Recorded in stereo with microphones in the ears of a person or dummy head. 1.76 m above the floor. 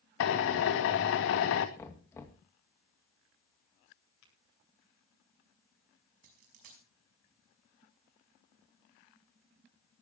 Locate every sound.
0.2 s a drill: 75° left (ahead or behind), 2 m
1.8 s knocking: 15° left (ahead or behind), 2 m
4.2 s tapping: 85° left, 9.5 m
6.2 s a dropped coin: 55° right (ahead or behind), 5 m